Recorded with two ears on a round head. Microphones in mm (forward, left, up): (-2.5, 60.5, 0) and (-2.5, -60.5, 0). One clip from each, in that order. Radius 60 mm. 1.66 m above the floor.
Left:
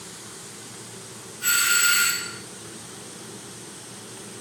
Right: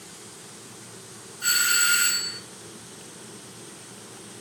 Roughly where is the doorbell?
Right.